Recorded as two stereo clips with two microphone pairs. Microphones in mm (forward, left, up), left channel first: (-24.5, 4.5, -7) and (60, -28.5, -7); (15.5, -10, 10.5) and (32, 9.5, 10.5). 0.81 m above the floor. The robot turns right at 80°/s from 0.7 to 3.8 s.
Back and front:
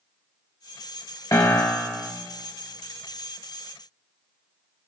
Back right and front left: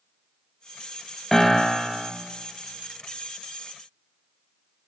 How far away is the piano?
About 0.9 m.